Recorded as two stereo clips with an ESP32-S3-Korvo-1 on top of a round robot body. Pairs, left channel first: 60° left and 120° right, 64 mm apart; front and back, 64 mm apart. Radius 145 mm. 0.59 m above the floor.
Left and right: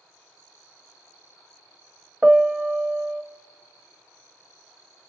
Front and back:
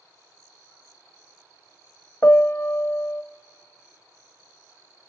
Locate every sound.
2.2 s a piano: 45° right, 0.8 m